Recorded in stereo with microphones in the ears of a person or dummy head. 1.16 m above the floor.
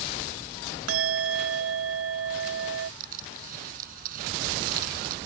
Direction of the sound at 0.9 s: 80° right.